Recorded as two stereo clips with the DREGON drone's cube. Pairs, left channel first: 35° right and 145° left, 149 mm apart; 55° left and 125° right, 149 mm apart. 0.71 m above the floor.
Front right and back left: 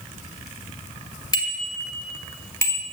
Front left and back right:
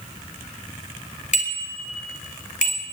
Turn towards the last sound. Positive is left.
turn(degrees=40)